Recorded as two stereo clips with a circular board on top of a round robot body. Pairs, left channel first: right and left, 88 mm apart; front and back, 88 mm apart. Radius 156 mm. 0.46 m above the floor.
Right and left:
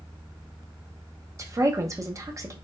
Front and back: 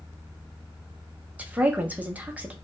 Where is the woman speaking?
115° left, 0.8 m.